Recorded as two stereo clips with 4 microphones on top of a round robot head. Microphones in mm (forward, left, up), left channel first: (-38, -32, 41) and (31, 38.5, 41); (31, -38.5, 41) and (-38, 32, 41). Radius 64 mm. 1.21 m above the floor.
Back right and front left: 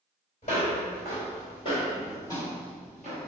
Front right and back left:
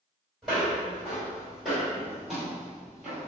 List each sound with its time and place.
0.4 s footsteps: 130° right, 1.8 m; by 3.3 s 85° left, 1.2 m